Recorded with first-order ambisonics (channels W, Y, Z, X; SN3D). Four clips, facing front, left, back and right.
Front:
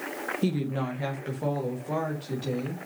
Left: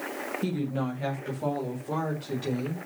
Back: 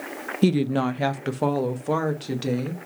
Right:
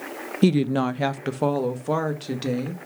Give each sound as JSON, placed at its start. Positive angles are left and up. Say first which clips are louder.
{"t": 0.4, "sound": "a woman speaking", "louder": "right 12 dB, back 9 dB", "azimuth_deg": -125, "distance_m": 0.5}